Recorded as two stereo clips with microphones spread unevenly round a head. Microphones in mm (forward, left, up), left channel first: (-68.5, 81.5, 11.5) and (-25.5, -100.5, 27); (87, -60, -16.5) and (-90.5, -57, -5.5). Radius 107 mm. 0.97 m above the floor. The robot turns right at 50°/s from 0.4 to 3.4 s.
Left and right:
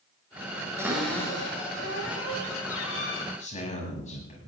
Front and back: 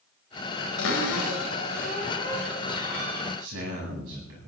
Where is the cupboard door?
Straight ahead, 3.5 m; by 3.2 s 125° left, 3.5 m.